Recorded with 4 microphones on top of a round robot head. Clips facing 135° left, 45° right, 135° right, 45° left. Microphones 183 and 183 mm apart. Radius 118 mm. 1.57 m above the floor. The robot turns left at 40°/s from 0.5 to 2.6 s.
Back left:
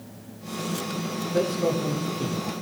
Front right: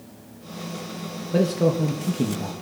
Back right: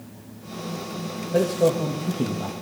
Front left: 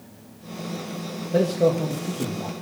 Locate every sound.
1.3 s a man speaking: 25° right, 1.7 m; by 2.5 s 75° right, 1.7 m